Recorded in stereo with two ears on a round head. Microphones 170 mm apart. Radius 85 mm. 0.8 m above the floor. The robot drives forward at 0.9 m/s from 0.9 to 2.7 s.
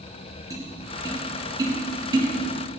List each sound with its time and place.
0.5 s tapping: 20° right (ahead or behind), 5 m; by 2.7 s 25° right (ahead or behind), 3.5 m